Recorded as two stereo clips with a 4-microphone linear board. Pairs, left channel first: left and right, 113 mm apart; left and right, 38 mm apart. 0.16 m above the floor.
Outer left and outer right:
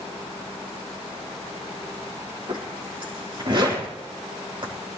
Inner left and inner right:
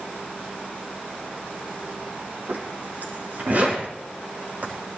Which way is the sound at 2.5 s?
50° right (ahead or behind).